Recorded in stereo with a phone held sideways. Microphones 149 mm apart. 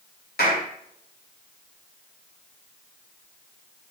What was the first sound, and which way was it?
A clap, 85° left.